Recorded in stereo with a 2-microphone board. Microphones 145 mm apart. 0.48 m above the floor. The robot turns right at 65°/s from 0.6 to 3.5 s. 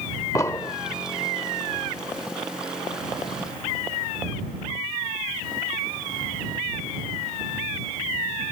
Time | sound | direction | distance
0.3 | an explosion | 20° left (ahead or behind) | ?